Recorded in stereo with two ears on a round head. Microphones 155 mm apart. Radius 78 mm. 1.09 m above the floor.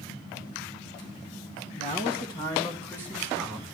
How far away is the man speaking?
About 1.7 m.